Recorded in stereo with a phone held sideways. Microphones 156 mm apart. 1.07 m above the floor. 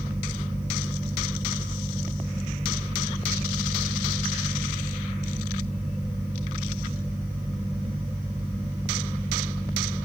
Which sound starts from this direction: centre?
A fan, at 0.0 s.